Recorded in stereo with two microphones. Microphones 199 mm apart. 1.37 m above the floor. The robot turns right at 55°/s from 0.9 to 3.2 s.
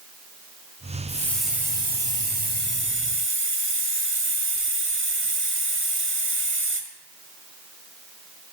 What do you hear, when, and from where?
1.1 s a hiss: 160° left, 1.4 m; by 6.8 s 80° right, 1.4 m